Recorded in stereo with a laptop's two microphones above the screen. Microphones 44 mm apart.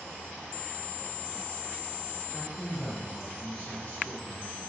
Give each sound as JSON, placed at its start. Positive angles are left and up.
{"t": 2.3, "sound": "a man speaking", "side_deg": 25, "distance_m": 3.0}